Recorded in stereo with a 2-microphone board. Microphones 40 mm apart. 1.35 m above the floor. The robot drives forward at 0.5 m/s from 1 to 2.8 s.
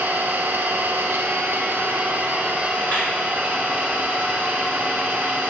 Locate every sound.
0.0 s an engine running: 75° right (ahead or behind), 0.7 m; by 5.5 s 40° right (ahead or behind), 1.2 m
2.9 s a clap: 40° left (ahead or behind), 2.5 m